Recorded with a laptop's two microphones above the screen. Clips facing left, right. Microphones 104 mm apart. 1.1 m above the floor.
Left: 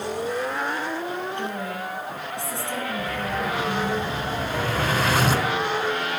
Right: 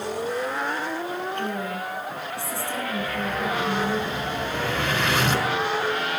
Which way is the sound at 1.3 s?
25° left (ahead or behind).